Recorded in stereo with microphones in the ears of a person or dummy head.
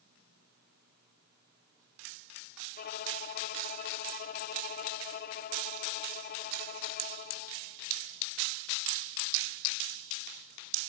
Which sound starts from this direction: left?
A violin, at 2.8 s.